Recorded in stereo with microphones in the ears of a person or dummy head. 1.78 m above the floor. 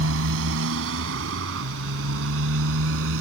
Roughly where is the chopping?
No chopping in this recording.